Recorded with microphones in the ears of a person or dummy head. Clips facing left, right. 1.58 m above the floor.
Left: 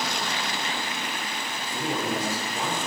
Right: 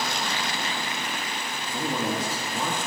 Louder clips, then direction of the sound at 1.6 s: Right 1 dB; 70° right (ahead or behind).